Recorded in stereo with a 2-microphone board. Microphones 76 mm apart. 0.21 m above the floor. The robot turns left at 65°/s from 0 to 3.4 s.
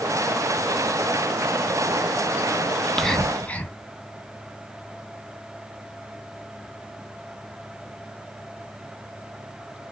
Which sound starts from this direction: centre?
Whispering, at 2.8 s.